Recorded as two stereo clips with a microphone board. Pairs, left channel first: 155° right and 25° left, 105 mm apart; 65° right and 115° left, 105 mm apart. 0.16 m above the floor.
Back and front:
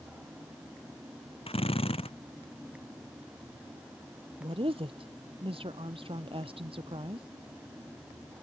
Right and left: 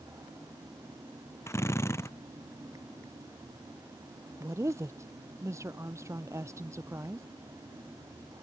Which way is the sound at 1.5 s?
130° right.